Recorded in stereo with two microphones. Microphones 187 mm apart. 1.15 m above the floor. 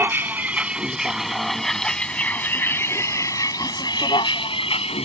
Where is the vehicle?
10° right (ahead or behind); by 5.1 s 35° left (ahead or behind).